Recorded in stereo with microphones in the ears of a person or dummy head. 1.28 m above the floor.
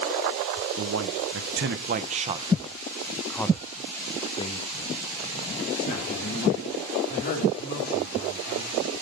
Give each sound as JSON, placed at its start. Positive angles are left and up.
{"t": 0.8, "sound": "a man speaking", "side_deg": -75, "distance_m": 1.2}